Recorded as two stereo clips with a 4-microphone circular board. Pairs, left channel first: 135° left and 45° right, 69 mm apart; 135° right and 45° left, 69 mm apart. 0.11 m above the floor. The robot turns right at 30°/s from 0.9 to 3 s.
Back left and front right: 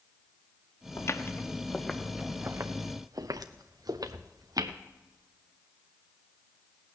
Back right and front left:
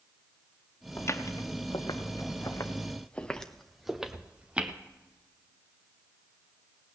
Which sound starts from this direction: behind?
Footsteps, at 1.0 s.